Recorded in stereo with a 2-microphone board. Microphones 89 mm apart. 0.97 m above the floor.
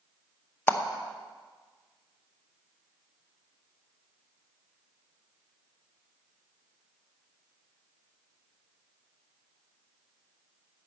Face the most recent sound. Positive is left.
turn(degrees=25)  # may be behind; listen again after turning